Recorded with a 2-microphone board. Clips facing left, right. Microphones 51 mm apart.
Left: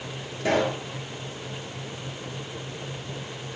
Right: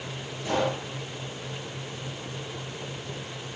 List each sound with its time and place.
0.4 s a pop: 85° left, 7 m